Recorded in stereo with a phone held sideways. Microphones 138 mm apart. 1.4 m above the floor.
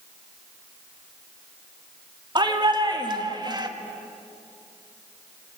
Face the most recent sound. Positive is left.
turn(degrees=-30)  # may be behind; listen again after turning